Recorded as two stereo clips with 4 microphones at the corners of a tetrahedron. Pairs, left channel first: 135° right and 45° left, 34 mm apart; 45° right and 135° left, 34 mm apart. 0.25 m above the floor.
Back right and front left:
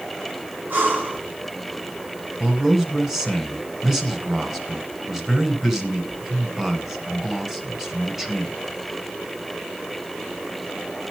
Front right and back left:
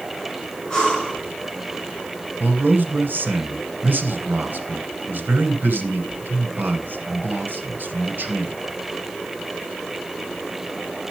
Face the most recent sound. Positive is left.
turn(degrees=120)